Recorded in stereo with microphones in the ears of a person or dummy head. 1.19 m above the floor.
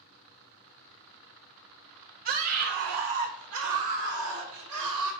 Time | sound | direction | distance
2.2 | a scream | 45° right (ahead or behind) | 0.6 m